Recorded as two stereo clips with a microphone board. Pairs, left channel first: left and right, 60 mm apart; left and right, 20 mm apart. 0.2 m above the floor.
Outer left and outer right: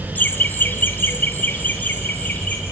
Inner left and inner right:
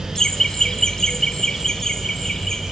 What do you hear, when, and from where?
0.1 s laughter: 30° left (ahead or behind), 1.2 m; by 2.6 s 25° left (ahead or behind), 1.6 m